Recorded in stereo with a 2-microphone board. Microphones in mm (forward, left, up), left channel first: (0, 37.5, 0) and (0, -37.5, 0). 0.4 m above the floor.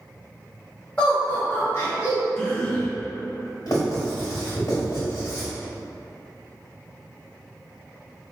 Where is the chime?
I don't hear a chime.